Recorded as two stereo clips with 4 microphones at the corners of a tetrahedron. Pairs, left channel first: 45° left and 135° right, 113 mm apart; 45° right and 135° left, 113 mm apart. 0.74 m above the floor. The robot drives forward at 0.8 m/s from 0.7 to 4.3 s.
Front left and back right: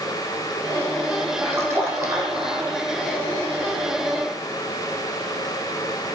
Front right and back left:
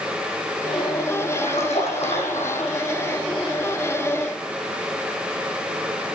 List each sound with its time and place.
1.4 s a splash: 65° right, 9 m; by 2.8 s 75° right, 8.5 m